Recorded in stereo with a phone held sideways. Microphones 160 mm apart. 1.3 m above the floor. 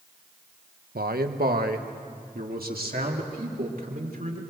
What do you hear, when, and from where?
0.9 s a man speaking: 85° right, 1.0 m; by 4.4 s 75° right (ahead or behind), 4 m